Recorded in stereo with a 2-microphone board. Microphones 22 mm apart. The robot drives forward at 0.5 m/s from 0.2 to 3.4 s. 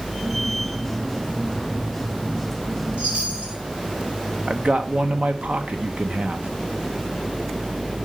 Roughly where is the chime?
Right.